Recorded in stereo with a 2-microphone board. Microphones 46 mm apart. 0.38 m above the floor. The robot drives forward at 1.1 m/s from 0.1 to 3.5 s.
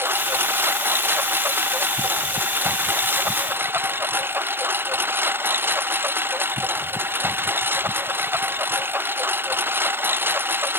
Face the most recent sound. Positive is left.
turn(degrees=-55)  # may be behind; listen again after turning